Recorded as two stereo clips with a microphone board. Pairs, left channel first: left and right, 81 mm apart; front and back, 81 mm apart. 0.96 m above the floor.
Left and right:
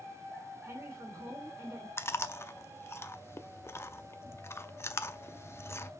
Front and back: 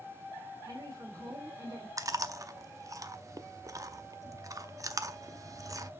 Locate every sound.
0.6 s a woman speaking: 150° right, 3 m
2.0 s chewing: 140° left, 0.6 m